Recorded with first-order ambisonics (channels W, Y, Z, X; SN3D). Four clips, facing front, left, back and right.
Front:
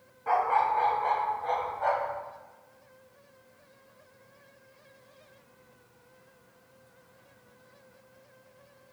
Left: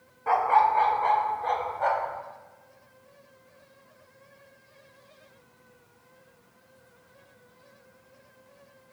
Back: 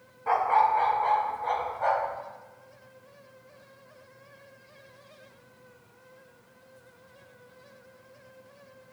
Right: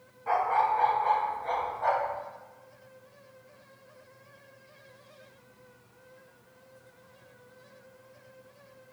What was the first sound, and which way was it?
A dog barking, 115° left.